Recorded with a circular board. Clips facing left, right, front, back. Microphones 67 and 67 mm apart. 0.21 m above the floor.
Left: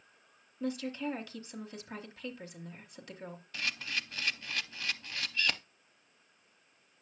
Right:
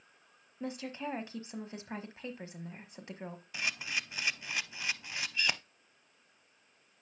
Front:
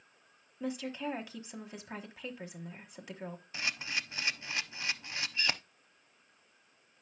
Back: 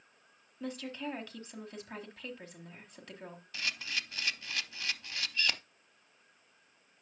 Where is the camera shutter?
30° right, 0.5 m.